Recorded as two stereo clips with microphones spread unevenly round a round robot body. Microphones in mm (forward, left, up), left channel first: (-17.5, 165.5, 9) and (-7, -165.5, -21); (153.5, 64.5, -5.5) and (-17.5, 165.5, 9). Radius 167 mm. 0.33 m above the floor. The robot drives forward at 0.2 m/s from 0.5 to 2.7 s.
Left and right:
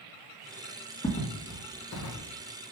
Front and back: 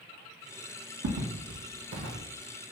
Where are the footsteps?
170° left, 1.2 m; by 2.2 s 130° left, 1.1 m.